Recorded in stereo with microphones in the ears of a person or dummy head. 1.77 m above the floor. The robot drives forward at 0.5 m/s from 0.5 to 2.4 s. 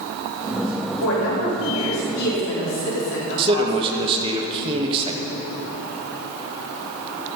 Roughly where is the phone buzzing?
No phone buzzing in this recording.